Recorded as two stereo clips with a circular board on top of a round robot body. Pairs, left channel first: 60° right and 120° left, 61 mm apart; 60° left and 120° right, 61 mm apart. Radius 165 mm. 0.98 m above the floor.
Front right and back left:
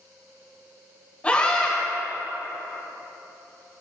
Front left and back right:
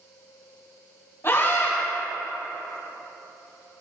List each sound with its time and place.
1.2 s a scream: 10° left, 4 m